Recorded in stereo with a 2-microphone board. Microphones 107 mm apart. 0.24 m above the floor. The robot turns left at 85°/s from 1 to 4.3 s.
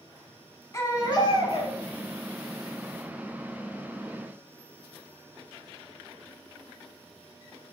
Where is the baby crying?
145° left, 0.6 m; by 1.8 s 80° left, 0.6 m.